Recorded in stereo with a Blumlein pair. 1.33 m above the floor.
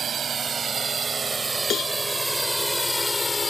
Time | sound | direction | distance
0.0 | a drone | 25° right | ?
1.7 | a cowbell | 25° left | ?